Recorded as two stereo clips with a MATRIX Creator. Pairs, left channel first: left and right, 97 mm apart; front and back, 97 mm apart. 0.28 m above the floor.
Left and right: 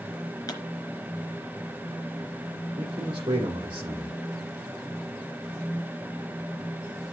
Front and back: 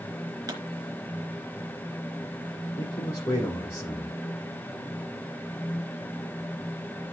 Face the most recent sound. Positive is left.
turn(degrees=-50)